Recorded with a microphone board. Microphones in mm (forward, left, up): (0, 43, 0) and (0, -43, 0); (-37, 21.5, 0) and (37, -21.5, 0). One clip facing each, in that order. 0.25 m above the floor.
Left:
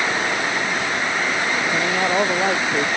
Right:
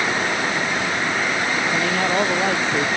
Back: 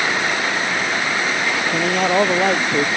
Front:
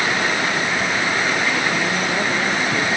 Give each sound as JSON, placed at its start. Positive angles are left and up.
{"t": 1.7, "sound": "a man speaking", "azimuth_deg": 170}